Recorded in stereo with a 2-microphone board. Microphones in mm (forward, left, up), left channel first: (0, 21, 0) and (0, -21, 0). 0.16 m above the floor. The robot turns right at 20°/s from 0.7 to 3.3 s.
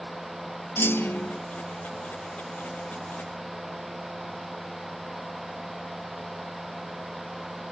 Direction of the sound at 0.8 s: 65° left (ahead or behind).